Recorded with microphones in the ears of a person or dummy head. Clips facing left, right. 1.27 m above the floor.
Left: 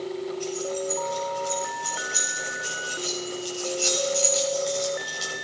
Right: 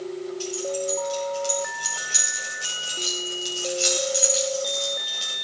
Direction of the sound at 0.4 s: 55° right (ahead or behind).